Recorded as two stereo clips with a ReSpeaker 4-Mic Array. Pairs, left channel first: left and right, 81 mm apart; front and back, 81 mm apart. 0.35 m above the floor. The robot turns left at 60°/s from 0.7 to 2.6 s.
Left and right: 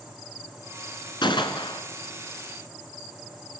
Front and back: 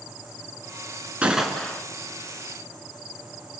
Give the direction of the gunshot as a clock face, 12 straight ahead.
8 o'clock.